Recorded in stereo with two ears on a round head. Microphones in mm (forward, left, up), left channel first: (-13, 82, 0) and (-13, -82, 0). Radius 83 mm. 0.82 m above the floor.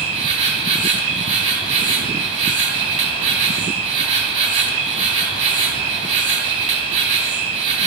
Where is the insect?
40° right (ahead or behind), 2.5 m.